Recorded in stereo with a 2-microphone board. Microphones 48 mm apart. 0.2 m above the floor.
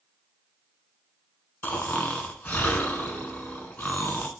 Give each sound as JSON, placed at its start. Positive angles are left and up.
{"t": 1.6, "sound": "snoring", "side_deg": 40, "distance_m": 0.7}